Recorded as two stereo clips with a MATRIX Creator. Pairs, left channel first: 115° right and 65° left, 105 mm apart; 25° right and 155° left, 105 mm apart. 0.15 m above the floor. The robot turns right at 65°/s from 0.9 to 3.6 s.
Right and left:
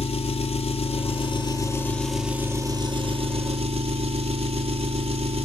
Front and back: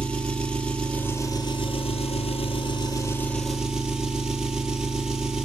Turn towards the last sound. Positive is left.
turn(degrees=75)